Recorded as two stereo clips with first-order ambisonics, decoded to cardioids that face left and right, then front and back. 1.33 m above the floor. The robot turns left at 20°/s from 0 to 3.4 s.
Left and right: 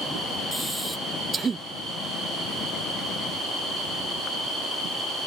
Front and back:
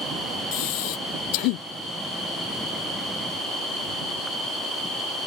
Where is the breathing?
Straight ahead; by 1.7 s 20° right.